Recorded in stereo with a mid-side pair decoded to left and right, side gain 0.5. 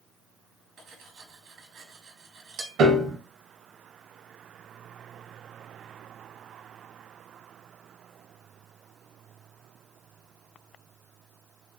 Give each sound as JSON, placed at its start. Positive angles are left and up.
{"t": 0.8, "sound": "cutlery clinking", "azimuth_deg": -70, "distance_m": 1.0}
{"t": 2.8, "sound": "a piano", "azimuth_deg": -65, "distance_m": 0.8}